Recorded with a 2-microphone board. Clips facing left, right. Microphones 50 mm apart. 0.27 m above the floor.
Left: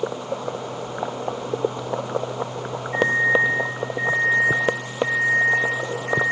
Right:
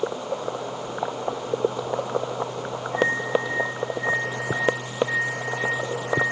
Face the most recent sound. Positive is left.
turn(degrees=55)  # may be behind; listen again after turning